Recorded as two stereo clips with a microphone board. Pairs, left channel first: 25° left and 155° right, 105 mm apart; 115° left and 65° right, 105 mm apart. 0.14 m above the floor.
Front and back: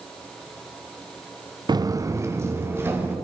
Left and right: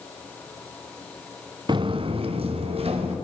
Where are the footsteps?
110° right, 0.6 m; by 3.1 s 90° right, 2.5 m.